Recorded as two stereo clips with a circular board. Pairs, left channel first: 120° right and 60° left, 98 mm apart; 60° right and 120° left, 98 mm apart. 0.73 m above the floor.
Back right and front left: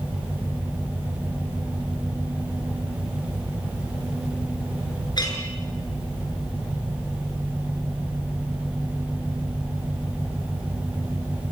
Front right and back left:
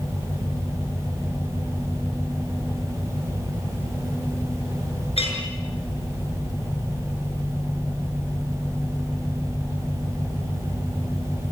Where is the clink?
75° right, 6.5 m.